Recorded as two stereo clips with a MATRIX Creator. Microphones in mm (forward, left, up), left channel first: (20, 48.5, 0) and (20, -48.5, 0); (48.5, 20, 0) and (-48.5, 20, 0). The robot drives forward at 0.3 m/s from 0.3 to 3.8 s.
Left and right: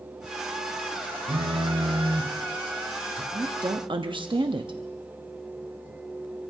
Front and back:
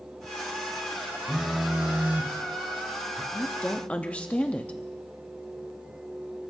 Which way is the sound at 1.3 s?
95° right.